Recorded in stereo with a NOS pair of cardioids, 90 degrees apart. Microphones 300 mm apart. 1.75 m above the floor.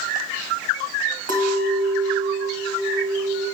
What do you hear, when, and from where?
1.3 s a clink: 60° right, 2.0 m